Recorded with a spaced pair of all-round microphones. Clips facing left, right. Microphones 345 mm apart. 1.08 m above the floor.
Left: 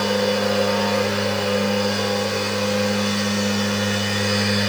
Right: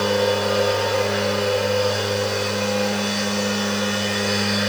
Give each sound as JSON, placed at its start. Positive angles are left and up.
{"t": 0.0, "sound": "a machine running", "side_deg": 35, "distance_m": 4.5}